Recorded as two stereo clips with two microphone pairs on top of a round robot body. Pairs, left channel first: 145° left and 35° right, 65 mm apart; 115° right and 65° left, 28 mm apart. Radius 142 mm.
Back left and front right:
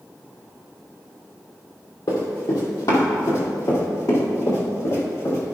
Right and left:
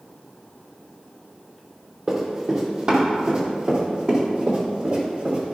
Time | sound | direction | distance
2.1 | running footsteps | 120° left | 2.5 m